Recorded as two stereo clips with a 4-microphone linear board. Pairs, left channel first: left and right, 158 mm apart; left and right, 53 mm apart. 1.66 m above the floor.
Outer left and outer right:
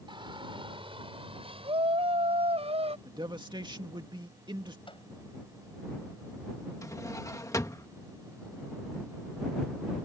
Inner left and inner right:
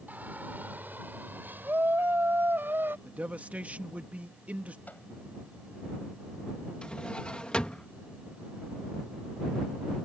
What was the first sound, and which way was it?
A shout, 30° right (ahead or behind).